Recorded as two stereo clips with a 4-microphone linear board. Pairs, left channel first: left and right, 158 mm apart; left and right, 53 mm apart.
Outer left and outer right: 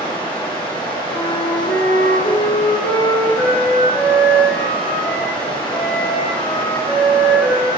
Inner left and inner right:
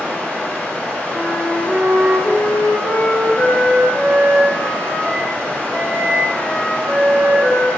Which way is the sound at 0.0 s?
30° left (ahead or behind).